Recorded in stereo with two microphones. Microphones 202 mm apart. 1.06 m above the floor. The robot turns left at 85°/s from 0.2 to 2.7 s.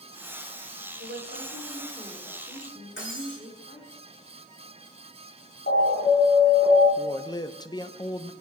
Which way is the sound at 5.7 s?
55° left (ahead or behind).